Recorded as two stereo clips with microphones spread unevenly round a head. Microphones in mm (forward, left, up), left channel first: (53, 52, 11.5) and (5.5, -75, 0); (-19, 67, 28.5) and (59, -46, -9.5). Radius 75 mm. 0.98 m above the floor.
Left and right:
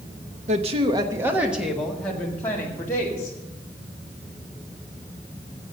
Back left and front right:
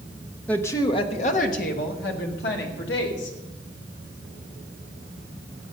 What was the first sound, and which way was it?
A woman speaking, 145° right.